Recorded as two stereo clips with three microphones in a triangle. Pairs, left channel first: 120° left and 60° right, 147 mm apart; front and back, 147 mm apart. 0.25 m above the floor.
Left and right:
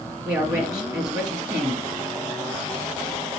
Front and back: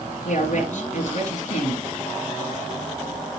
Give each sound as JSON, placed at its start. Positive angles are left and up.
{"t": 0.2, "sound": "a woman speaking", "azimuth_deg": 5, "distance_m": 2.0}